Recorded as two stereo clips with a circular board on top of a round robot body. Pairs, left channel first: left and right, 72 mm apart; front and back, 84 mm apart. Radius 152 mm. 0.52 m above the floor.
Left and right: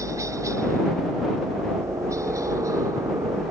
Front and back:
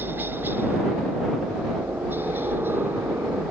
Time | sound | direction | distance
0.0 | a helicopter | 120° right | ?